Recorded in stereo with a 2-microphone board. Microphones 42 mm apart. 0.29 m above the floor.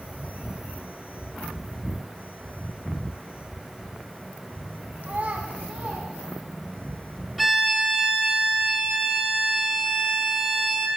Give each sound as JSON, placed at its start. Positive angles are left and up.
{"t": 5.0, "sound": "a child speaking", "side_deg": -40, "distance_m": 1.2}
{"t": 7.4, "sound": "a violin", "side_deg": -5, "distance_m": 1.2}